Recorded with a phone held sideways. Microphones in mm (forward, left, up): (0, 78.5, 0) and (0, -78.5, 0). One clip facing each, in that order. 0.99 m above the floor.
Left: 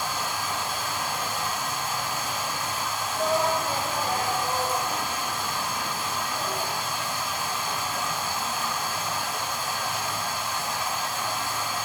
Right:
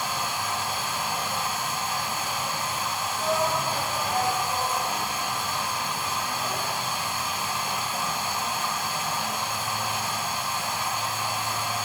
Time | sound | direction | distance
0.0 | running water | 80° right | 3 m
3.2 | a shout | 60° left (ahead or behind) | 1.3 m